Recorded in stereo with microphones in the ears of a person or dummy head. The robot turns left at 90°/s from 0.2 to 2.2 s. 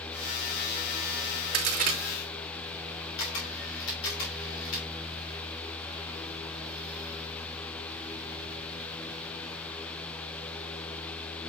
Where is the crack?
70° right (ahead or behind), 2.5 m; by 2.0 s 30° right (ahead or behind), 2.5 m.